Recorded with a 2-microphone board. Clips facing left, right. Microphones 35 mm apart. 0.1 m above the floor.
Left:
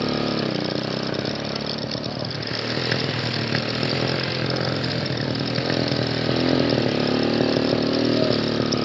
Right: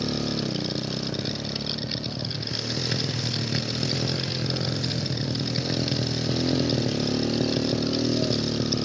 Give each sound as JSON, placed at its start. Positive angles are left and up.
{"t": 0.0, "sound": "a motorcycle", "side_deg": 35}